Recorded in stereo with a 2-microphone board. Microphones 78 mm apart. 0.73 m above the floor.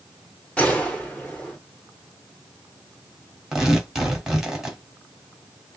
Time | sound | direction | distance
0.6 | a gunshot | 15° left (ahead or behind) | 1.8 m
3.5 | tearing paper | 5° right (ahead or behind) | 2 m